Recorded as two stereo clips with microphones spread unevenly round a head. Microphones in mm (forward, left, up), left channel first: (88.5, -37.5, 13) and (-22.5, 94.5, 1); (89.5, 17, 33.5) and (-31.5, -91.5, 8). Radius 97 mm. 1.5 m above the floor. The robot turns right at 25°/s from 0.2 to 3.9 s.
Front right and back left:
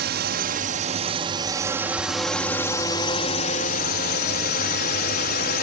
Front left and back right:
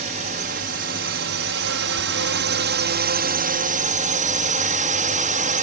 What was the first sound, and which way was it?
A drone, 170° left.